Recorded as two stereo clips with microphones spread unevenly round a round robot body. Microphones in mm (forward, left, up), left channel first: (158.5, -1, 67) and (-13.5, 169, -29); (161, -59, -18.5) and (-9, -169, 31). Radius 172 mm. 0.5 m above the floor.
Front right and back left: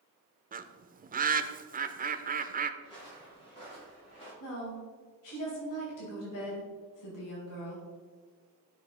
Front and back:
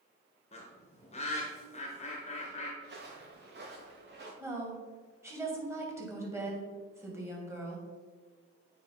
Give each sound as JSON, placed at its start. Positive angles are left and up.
{"t": 0.5, "sound": "a bird", "azimuth_deg": 90, "distance_m": 0.6}
{"t": 2.8, "sound": "footsteps", "azimuth_deg": -120, "distance_m": 2.5}
{"t": 4.4, "sound": "a woman speaking", "azimuth_deg": -65, "distance_m": 3.0}